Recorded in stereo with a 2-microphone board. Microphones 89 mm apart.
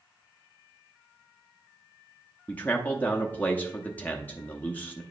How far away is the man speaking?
About 0.6 m.